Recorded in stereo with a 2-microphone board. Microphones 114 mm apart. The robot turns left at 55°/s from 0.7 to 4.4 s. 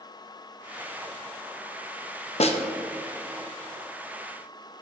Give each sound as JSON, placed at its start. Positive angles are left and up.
{"t": 2.4, "sound": "a snare drum", "side_deg": 65, "distance_m": 0.8}